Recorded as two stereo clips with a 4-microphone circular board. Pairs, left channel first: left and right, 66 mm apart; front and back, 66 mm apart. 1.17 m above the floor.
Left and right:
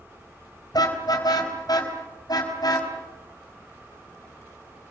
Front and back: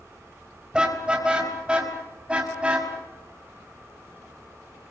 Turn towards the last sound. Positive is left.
turn(degrees=105)